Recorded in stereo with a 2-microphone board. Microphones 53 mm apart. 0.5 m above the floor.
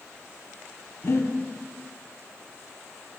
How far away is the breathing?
About 1.0 m.